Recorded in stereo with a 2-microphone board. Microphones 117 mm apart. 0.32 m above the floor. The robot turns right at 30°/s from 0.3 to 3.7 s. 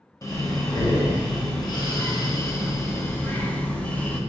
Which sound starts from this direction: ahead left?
Breathing, at 0.2 s.